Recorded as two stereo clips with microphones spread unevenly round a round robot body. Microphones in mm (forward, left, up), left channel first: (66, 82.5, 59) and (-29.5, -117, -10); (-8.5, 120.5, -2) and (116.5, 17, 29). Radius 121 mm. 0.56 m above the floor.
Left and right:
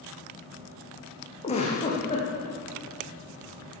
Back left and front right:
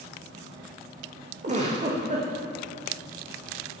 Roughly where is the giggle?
Ahead.